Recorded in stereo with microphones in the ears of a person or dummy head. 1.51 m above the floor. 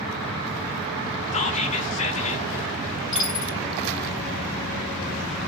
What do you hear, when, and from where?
1.3 s whispering: 40° left (ahead or behind), 0.7 m
3.1 s a dropped coin: 5° right (ahead or behind), 3.5 m